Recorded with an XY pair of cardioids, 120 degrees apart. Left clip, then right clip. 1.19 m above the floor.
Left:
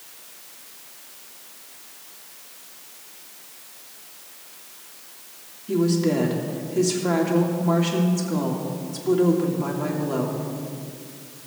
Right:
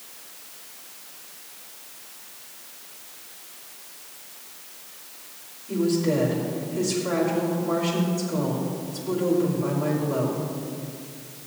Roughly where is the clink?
No clink in this recording.